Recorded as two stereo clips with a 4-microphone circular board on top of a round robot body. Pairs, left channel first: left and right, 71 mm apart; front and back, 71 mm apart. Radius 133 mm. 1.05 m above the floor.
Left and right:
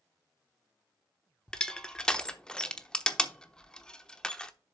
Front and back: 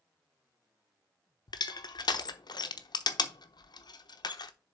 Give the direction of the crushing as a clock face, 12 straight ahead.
12 o'clock.